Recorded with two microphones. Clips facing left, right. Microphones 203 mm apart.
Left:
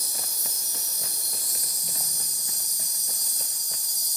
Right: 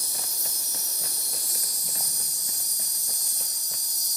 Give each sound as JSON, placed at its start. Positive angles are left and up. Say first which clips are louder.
{"t": 0.0, "sound": "an insect", "louder": "even", "side_deg": 15, "distance_m": 0.8}